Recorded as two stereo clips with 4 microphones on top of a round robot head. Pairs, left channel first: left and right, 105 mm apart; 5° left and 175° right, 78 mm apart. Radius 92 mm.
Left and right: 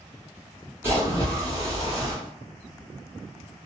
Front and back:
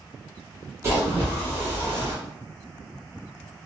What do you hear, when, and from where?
0.8 s a splash: 145° right, 1.4 m